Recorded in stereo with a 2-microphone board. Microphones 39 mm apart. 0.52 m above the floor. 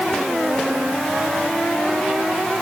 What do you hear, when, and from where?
Only background noise.